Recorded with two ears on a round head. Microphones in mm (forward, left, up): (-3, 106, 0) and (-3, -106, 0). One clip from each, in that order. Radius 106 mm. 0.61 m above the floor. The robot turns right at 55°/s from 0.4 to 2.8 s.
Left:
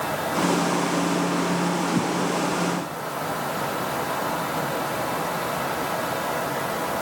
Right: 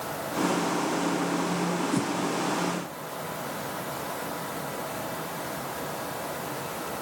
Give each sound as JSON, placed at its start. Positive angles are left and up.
{"t": 1.9, "sound": "a whoosh", "side_deg": -85, "distance_m": 3.0}